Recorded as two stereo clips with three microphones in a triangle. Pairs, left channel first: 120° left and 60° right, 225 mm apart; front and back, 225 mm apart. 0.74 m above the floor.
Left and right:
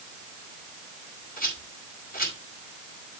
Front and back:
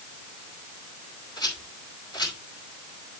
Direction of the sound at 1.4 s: 70° left.